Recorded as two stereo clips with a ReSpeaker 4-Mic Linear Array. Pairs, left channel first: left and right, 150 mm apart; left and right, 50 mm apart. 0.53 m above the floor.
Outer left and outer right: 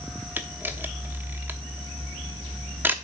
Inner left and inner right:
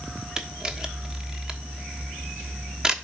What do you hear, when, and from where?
0.4 s a camera shutter: 15° right (ahead or behind), 1.0 m